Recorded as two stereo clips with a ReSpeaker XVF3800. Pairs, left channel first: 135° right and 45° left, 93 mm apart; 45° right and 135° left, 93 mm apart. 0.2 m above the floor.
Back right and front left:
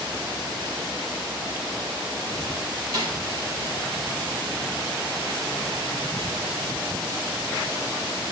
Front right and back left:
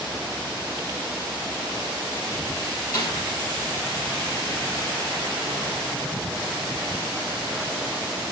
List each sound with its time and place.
2.9 s a snare drum: straight ahead, 3 m